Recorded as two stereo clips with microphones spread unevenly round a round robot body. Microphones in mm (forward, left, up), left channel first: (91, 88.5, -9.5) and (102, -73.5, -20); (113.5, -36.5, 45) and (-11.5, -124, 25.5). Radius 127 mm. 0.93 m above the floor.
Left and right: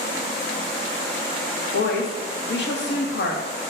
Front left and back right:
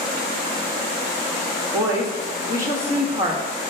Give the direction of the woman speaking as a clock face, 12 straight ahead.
9 o'clock.